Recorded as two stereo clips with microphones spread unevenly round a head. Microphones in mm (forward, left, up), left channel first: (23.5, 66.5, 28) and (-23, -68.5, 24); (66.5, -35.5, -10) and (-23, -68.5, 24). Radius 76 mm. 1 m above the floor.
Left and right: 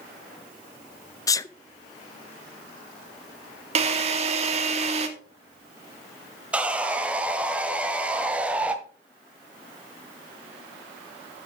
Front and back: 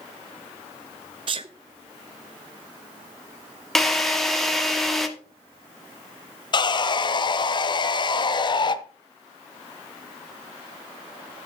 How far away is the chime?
No chime in this recording.